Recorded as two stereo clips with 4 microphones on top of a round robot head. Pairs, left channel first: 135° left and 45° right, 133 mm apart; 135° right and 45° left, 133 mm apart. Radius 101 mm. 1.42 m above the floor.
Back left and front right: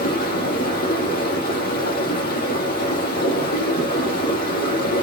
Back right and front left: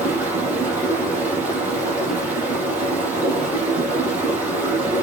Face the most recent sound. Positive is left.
turn(degrees=125)